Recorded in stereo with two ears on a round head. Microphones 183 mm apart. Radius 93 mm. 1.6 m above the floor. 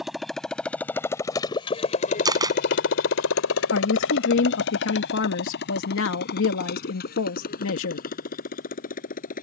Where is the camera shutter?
20° right (ahead or behind).